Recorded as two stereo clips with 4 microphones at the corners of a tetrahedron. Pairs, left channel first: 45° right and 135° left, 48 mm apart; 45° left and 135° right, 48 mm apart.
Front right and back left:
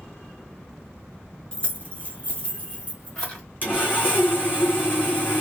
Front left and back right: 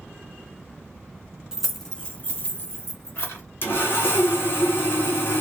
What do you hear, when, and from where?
1.5 s keys jangling: 75° right, 1.0 m; by 3.4 s 15° left, 2.5 m
3.6 s sawing: 5° left, 1.8 m